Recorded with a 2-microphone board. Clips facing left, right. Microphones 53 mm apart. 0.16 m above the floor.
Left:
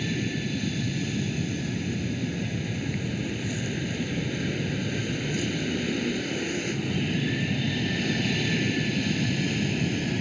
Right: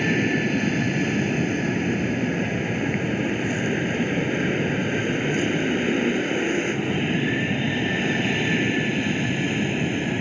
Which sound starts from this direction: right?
An aircraft, at 0.0 s.